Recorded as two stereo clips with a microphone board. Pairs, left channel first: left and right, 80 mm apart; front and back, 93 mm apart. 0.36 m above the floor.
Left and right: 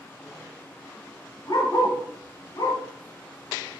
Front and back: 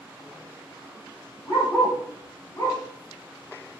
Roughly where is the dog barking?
Ahead left.